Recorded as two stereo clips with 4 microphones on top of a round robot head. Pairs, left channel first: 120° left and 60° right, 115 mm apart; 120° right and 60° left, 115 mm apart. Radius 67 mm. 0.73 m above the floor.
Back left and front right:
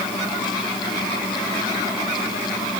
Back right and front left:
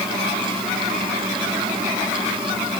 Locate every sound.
Only background noise.